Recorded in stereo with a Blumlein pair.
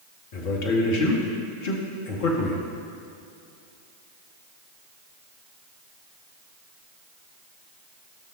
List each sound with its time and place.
0.3 s a man speaking: 45° left, 1.9 m